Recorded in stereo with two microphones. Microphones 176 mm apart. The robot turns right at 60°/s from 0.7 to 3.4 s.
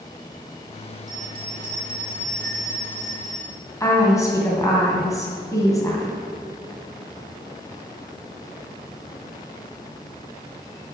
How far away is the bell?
About 2.5 m.